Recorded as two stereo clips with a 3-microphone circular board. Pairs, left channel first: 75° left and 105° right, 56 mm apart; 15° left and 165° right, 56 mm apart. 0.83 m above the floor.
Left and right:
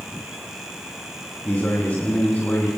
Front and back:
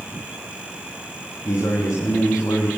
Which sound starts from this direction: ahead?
A man speaking, at 1.4 s.